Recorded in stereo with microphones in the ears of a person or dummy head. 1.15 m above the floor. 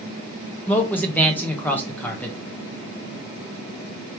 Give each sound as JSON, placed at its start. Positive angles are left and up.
{"t": 0.7, "sound": "a man speaking", "side_deg": 10, "distance_m": 1.1}